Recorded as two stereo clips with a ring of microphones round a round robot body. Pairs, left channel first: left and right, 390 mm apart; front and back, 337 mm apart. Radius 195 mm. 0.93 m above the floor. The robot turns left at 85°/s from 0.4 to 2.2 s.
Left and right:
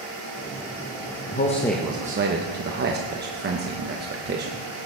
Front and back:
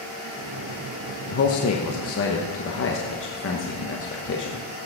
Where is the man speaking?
40° left, 1.0 m; by 4.6 s 35° right, 1.0 m.